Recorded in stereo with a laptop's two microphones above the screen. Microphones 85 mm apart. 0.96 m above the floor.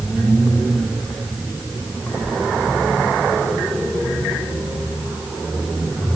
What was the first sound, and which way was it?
Only background noise.